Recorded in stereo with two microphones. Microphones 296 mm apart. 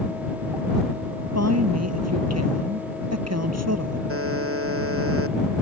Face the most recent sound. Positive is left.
turn(degrees=-50)  # may be behind; listen again after turning